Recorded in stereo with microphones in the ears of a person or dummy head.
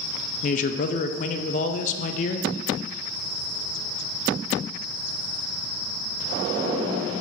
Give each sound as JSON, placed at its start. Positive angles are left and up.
{"t": 0.4, "sound": "a man speaking", "side_deg": 35, "distance_m": 0.6}